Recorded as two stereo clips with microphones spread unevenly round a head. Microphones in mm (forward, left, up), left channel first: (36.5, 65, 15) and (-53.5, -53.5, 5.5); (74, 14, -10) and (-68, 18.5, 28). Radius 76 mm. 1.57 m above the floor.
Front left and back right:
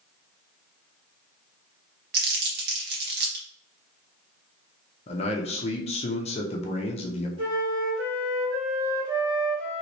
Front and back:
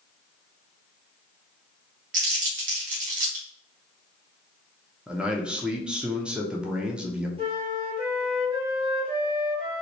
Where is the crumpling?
150° right, 1.3 m.